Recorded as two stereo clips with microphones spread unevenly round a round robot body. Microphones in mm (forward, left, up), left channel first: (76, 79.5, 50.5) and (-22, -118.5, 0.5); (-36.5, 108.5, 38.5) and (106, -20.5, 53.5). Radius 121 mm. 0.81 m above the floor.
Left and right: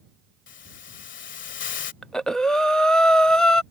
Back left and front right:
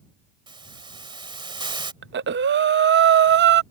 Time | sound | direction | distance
0.5 | a hiss | 25° left | ?
2.0 | breathing | 30° right | ?